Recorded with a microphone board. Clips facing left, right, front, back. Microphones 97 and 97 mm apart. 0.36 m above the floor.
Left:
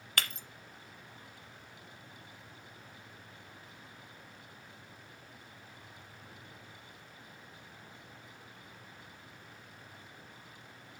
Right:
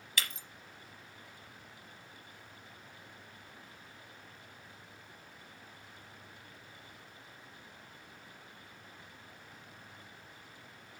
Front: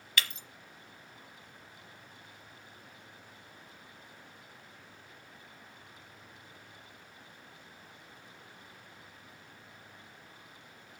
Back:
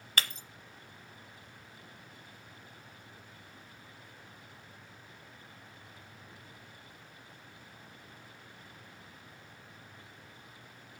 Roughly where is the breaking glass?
Behind left.